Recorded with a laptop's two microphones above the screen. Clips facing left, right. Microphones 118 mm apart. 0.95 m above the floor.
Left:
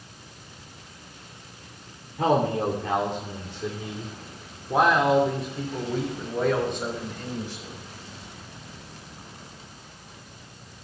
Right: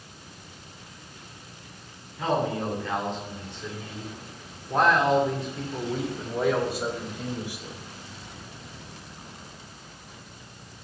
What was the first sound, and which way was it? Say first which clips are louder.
A man speaking: left 4 dB; 60° left (ahead or behind).